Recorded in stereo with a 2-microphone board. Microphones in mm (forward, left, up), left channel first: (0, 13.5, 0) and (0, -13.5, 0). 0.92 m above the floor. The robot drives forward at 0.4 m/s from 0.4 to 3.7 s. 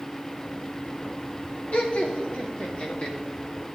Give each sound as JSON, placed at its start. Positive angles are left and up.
{"t": 1.7, "sound": "laughter", "side_deg": 60, "distance_m": 2.0}